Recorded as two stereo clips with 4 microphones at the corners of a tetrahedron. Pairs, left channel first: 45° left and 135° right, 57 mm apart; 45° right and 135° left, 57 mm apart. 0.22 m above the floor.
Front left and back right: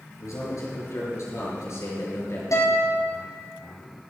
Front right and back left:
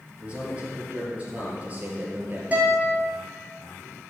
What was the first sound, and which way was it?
A man speaking, 65° left.